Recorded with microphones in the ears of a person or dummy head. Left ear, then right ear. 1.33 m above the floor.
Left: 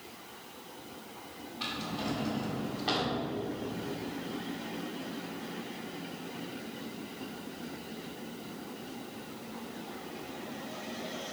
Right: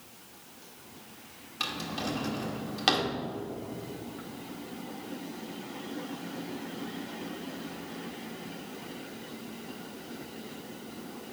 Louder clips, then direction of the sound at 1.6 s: Right 3 dB; 55° right (ahead or behind).